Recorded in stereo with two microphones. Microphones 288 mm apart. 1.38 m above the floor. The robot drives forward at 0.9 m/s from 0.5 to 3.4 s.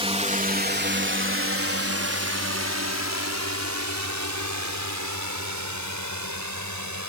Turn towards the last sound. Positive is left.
turn(degrees=-80)